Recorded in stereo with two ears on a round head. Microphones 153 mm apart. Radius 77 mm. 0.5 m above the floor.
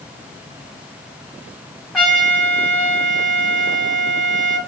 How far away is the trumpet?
About 1.5 m.